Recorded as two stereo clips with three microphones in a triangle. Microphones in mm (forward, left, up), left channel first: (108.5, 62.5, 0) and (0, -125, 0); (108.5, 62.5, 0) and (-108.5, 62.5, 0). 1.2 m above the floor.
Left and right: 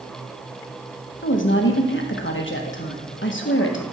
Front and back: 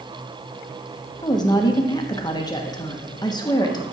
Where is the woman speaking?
70° left, 1.4 m.